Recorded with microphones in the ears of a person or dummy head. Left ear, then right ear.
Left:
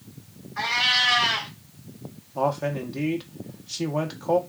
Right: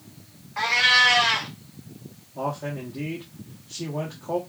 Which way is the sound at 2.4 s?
70° left (ahead or behind).